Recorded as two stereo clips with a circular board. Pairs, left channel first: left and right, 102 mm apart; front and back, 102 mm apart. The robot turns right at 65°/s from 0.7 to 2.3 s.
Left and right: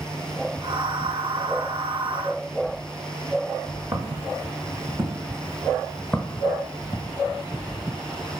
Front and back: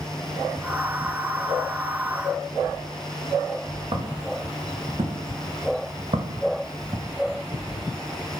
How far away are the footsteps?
About 1.8 m.